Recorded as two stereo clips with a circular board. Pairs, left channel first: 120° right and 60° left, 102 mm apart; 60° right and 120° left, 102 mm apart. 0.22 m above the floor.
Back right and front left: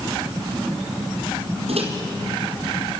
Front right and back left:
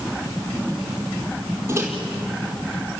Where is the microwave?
55° left, 4.5 m.